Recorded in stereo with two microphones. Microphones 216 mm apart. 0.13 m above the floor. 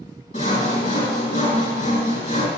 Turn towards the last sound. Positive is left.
turn(degrees=35)  # may be behind; listen again after turning